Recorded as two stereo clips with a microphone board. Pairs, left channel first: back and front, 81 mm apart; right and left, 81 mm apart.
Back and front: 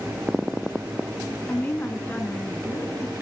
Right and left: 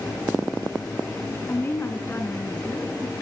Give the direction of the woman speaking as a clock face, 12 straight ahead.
4 o'clock.